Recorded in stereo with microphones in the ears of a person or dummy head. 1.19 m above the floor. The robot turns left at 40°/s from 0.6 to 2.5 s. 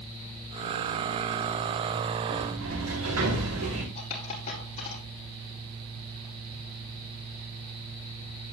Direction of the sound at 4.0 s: 40° left (ahead or behind).